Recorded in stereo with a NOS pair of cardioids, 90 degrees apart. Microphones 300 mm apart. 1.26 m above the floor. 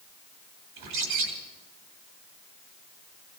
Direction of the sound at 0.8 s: 70° right.